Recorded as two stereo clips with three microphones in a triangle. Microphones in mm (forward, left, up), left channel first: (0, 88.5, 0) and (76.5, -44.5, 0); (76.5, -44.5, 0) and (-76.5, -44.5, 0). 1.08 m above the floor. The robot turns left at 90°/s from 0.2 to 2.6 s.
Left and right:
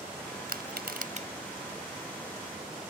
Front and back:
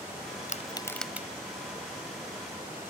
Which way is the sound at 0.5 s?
40° right.